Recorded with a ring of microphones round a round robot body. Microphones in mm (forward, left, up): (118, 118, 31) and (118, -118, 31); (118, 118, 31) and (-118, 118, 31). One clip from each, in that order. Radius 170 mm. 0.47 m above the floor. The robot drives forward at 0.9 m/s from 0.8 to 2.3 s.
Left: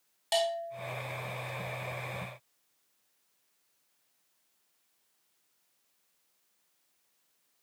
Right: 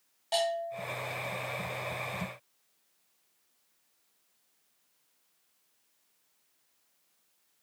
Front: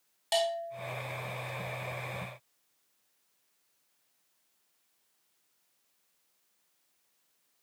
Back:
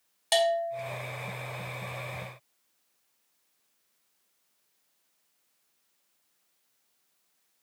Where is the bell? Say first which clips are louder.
Even, back 5 dB; 145° left, 2 m.